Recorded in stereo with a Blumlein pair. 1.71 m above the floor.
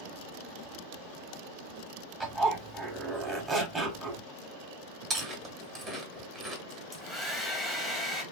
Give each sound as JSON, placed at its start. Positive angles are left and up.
{"t": 2.2, "sound": "a zipper", "azimuth_deg": -15, "distance_m": 1.2}
{"t": 5.1, "sound": "chewing", "azimuth_deg": -25, "distance_m": 1.3}
{"t": 6.7, "sound": "a hair dryer", "azimuth_deg": 0, "distance_m": 0.8}